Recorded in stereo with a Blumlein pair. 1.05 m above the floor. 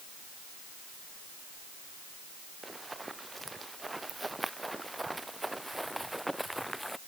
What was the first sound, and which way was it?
Running footsteps, 10° right.